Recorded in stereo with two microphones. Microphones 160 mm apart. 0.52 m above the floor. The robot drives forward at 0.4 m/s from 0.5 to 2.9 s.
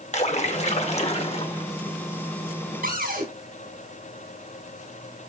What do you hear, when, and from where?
0.1 s a splash: 45° left (ahead or behind), 1.6 m; by 1.7 s 40° left (ahead or behind), 1.8 m
2.8 s a cupboard door: 70° right (ahead or behind), 5 m